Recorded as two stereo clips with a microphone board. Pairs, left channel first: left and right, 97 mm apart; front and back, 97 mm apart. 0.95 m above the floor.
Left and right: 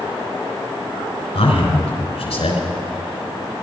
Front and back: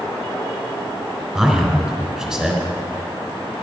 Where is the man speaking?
95° left, 3.5 m.